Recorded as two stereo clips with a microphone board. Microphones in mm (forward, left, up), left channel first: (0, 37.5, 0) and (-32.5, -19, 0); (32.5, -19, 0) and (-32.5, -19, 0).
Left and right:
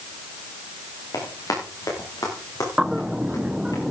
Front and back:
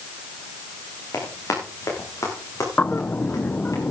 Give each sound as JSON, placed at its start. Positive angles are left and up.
{"t": 1.1, "sound": "running footsteps", "azimuth_deg": 40, "distance_m": 7.5}
{"t": 2.8, "sound": "a bird", "azimuth_deg": -45, "distance_m": 0.8}